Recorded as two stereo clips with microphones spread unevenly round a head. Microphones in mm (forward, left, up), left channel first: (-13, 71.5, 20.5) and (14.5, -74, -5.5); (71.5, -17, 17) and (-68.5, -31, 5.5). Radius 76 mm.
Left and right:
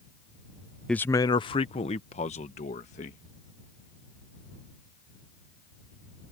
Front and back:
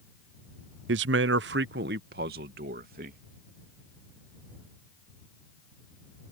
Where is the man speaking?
175° right; by 3.2 s 145° left.